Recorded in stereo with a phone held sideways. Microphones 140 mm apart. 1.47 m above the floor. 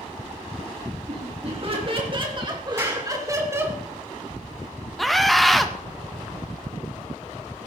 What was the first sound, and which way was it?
Laughter, 45° right (ahead or behind).